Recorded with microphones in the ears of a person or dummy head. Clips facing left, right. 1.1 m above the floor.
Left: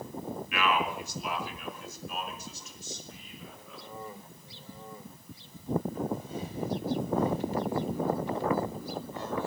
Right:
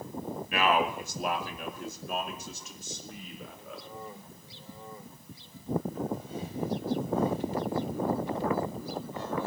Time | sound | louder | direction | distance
0.5 | a man speaking | right 3 dB | 40° right (ahead or behind) | 1.5 m